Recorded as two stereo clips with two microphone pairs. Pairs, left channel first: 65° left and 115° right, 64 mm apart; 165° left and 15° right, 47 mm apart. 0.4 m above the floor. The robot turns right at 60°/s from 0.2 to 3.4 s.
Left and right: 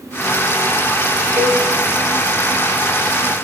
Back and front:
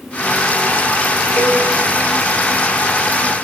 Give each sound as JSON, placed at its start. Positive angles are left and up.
{"t": 1.4, "sound": "a cowbell", "azimuth_deg": -165, "distance_m": 5.0}